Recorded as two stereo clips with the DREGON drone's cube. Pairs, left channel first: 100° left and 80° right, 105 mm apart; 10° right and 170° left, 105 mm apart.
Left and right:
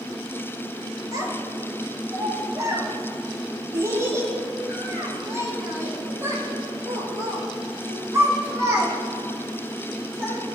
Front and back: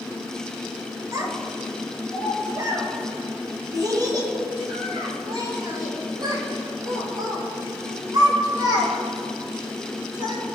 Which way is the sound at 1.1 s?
135° right.